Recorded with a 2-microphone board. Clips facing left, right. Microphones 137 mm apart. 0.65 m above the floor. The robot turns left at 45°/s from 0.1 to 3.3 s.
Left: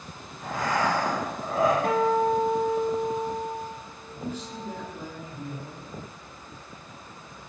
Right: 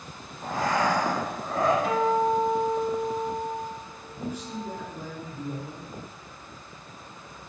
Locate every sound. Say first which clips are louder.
0.4 s breathing: right 1 dB; 135° right, 0.7 m; by 1.7 s 165° left, 0.7 m
1.8 s a guitar: left 1 dB; 120° left, 0.5 m; by 4.9 s 55° left, 0.5 m
4.1 s a man speaking: right 1 dB; 15° right (ahead or behind), 0.8 m